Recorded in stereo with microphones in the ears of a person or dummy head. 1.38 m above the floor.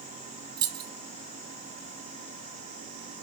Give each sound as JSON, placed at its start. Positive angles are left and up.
{"t": 0.6, "sound": "keys jangling", "side_deg": -25, "distance_m": 1.1}